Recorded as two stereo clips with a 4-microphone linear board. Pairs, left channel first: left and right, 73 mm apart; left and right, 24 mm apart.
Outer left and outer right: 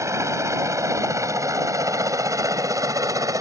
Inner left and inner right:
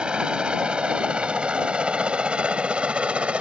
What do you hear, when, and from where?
0.0 s a helicopter: 45° right (ahead or behind); by 3.4 s 50° right (ahead or behind)